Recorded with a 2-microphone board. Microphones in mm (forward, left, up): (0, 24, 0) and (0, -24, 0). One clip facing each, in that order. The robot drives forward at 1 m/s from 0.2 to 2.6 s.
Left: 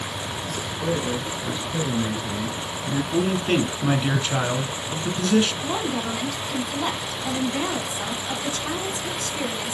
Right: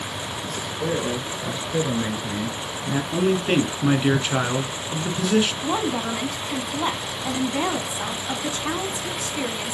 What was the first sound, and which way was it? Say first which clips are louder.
A man speaking: even; 15° right (ahead or behind).